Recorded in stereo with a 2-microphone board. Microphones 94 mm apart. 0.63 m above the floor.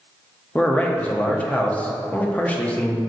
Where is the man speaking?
15° left (ahead or behind), 0.5 m.